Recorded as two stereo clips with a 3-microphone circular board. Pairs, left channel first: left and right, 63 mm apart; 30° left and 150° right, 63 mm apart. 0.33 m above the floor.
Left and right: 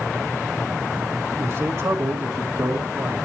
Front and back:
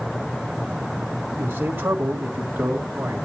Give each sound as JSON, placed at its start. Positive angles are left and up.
{"t": 1.4, "sound": "a man speaking", "azimuth_deg": -105, "distance_m": 2.0}